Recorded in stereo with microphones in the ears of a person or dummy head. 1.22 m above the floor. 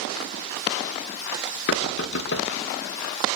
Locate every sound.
1.7 s knocking: 65° left (ahead or behind), 1.6 m